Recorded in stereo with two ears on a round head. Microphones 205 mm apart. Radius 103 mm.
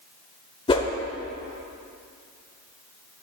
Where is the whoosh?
20° left (ahead or behind), 1.0 m.